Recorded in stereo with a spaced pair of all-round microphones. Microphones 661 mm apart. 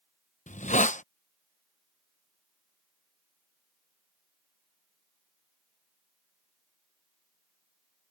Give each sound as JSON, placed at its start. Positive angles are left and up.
{"t": 0.5, "sound": "a hiss", "side_deg": 10}